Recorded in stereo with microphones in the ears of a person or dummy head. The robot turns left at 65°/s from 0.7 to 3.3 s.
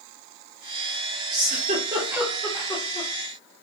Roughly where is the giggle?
Right.